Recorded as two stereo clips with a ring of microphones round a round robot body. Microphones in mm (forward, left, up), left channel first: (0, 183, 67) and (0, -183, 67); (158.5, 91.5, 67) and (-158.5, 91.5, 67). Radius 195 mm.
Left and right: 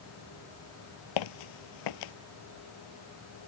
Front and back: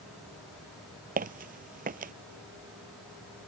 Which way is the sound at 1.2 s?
115° left.